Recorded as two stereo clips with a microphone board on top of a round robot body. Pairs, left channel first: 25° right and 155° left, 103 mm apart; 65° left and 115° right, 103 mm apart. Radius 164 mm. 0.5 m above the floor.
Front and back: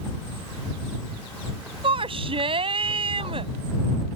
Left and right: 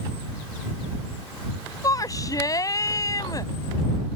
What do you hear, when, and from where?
1.8 s a shout: 125° left